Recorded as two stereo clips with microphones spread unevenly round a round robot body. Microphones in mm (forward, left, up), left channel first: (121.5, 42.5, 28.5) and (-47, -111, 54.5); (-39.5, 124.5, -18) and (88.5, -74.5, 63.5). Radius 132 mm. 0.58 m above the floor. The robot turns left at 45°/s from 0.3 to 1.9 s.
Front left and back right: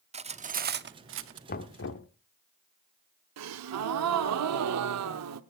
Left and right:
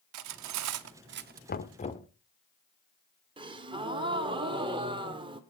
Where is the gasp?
135° right, 0.9 m.